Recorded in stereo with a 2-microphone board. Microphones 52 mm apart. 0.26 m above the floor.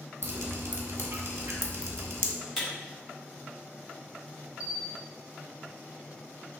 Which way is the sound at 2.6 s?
Centre (ahead or behind).